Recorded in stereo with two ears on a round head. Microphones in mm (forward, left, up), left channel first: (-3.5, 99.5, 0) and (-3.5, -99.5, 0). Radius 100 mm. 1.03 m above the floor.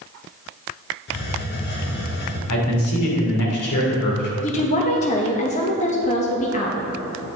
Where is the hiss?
50° left (ahead or behind), 1.4 m.